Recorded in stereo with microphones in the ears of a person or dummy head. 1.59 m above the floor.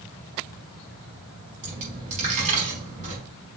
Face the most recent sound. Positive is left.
turn(degrees=-40)  # may be behind; listen again after turning